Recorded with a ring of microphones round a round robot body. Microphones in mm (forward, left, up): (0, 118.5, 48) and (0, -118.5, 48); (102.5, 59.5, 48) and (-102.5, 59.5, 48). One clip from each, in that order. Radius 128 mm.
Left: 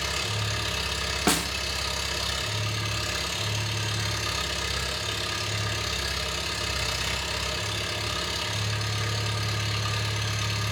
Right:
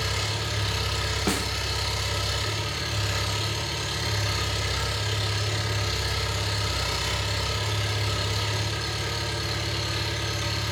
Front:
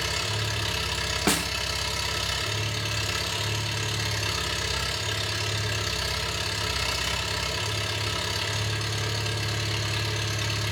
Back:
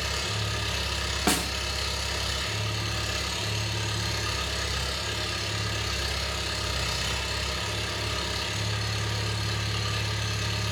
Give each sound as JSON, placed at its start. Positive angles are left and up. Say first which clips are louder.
{"t": 0.0, "sound": "an engine running", "louder": "even, front 2 dB", "azimuth_deg": 20, "distance_m": 5.0}
{"t": 1.3, "sound": "a snare drum", "louder": "left 4 dB, even", "azimuth_deg": 65, "distance_m": 0.8}